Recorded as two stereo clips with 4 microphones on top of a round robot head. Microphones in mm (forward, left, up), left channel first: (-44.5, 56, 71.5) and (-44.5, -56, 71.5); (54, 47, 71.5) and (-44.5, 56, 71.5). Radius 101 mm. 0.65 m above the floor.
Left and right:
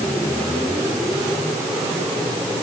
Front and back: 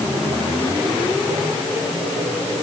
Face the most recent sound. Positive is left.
No sound to turn to.